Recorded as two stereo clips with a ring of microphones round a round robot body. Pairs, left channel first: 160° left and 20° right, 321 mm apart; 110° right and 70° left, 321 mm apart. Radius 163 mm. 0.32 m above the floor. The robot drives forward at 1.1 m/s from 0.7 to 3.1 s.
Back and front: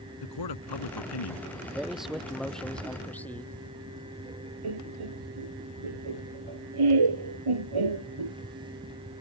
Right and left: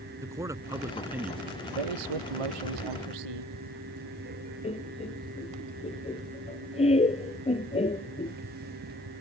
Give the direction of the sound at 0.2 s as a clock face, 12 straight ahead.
7 o'clock.